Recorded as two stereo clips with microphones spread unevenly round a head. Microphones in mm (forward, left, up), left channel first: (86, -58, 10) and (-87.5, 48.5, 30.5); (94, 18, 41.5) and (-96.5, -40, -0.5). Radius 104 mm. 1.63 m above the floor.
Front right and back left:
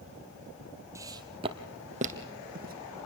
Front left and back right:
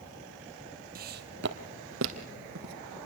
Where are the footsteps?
165° right, 1.8 m; by 2.7 s straight behind, 2.5 m.